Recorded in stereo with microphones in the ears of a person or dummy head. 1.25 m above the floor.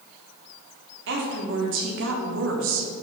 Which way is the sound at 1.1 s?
60° right (ahead or behind).